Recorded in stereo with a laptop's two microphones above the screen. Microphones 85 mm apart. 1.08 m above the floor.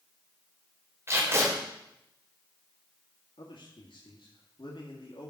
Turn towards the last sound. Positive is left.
turn(degrees=75)  # may be behind; listen again after turning